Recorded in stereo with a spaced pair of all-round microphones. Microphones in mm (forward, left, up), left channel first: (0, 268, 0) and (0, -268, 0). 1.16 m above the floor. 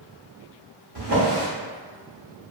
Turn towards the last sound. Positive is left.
turn(degrees=-45)  # may be behind; listen again after turning